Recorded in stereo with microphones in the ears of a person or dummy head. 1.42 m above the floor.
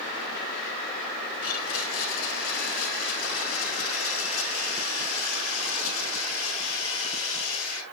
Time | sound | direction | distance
1.4 | a blender | 75° left (ahead or behind) | 6.5 m